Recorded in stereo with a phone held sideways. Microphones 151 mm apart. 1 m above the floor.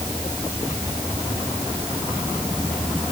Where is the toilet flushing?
No toilet flushing in this recording.